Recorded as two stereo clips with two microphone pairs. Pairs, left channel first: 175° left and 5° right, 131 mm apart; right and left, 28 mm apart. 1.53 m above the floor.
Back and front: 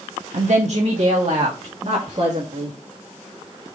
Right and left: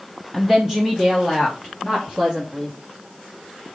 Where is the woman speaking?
5° left, 0.7 m; by 2.8 s 35° left, 2.5 m.